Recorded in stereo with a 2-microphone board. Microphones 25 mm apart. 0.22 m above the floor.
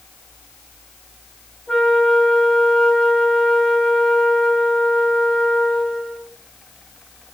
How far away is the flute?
About 1.5 m.